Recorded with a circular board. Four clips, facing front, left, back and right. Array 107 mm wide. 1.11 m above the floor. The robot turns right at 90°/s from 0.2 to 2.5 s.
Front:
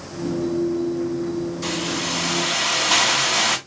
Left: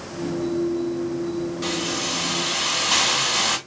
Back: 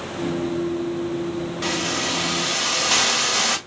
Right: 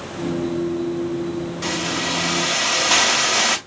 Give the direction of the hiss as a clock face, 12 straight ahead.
6 o'clock.